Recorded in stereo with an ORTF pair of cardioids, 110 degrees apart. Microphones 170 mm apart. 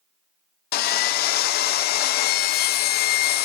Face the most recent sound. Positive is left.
turn(degrees=70)